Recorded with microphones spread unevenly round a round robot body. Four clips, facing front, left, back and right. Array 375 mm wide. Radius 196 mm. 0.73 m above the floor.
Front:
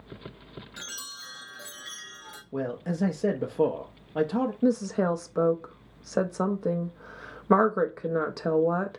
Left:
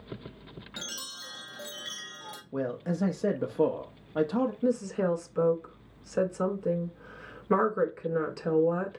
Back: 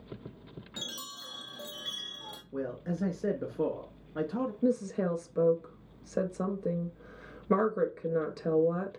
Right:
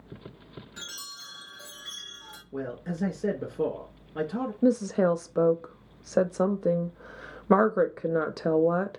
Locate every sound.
0.8 s a chime: 135° left, 0.6 m
2.5 s a man speaking: 10° left, 0.5 m
4.6 s a woman speaking: 55° right, 0.6 m